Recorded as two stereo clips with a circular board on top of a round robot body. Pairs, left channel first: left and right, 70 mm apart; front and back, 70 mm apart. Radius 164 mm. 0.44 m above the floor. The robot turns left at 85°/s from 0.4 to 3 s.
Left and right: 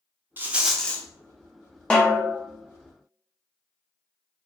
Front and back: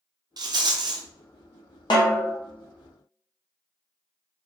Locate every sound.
0.4 s a rattle: 155° right, 0.7 m; by 1.1 s 150° left, 0.7 m
1.9 s a snare drum: 15° left, 0.5 m; by 2.4 s 25° right, 0.5 m